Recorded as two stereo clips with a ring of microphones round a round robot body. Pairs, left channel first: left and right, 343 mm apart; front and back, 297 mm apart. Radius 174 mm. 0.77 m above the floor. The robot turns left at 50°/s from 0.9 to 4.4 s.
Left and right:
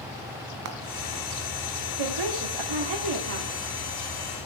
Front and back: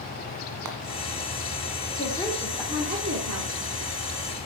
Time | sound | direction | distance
0.7 | frying | 135° right | 1.5 m
2.0 | a woman speaking | 70° right | 1.9 m